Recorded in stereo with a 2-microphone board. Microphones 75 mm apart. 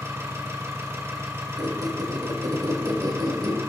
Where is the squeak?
60° right (ahead or behind), 1.4 m.